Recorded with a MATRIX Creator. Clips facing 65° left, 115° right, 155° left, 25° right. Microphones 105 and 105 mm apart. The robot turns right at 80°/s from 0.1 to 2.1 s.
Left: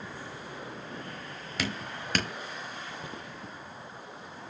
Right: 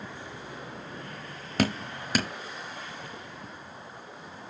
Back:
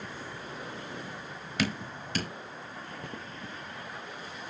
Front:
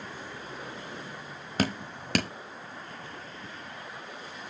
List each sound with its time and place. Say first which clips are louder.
1.6 s dripping: right 7 dB, front 2 dB; 70° right, 0.8 m; by 2.3 s 30° right, 0.8 m
3.0 s footsteps: left 1 dB, back 2 dB; 130° left, 1.2 m